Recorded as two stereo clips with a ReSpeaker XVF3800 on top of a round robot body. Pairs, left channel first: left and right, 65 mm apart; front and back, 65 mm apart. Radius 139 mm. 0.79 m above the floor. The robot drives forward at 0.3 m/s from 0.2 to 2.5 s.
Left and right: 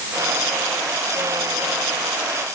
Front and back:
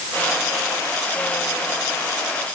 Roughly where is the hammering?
I don't hear hammering.